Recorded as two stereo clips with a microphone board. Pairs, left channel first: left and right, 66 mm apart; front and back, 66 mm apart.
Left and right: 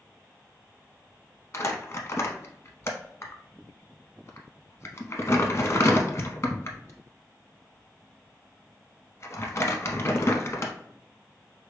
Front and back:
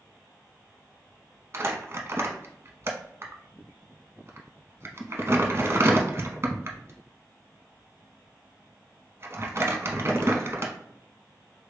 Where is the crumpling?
135° left, 0.6 m.